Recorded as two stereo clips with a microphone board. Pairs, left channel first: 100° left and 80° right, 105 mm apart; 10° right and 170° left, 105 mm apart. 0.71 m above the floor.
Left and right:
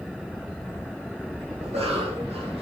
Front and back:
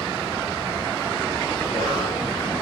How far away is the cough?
About 4.5 m.